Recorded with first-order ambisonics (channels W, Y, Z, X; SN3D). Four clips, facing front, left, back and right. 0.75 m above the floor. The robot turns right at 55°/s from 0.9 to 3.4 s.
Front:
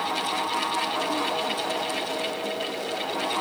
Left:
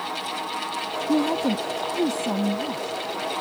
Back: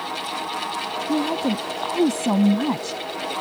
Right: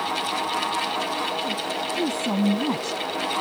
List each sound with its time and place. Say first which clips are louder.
1.1 s a woman speaking: left 4 dB, back 4 dB; 120° left; by 3.0 s 135° right